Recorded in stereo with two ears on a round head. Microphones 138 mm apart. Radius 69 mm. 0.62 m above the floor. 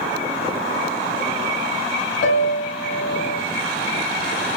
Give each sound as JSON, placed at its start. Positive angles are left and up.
{"t": 2.2, "sound": "a piano", "side_deg": 80, "distance_m": 1.5}